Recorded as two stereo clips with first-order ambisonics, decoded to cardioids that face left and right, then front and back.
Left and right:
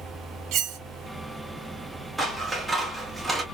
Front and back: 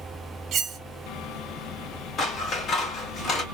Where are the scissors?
20° right, 0.9 m.